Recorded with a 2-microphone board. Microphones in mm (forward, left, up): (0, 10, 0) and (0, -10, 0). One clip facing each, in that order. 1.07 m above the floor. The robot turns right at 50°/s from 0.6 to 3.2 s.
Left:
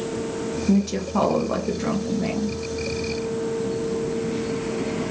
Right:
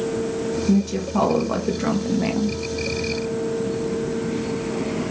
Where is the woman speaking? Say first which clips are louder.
Left 1 dB; 145° left, 0.5 m; by 2.6 s 120° right, 0.5 m.